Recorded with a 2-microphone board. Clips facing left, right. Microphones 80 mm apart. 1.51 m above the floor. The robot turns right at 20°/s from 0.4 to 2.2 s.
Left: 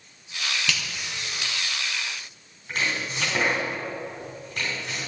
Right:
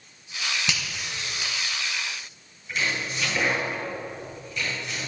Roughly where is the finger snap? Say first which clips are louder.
Left 1 dB; centre.